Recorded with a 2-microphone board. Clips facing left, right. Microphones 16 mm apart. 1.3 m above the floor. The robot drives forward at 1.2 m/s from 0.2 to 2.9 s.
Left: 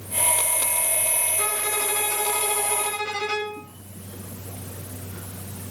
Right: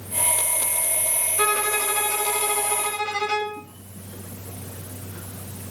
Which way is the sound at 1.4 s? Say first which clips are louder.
Right 8 dB; 70° right (ahead or behind).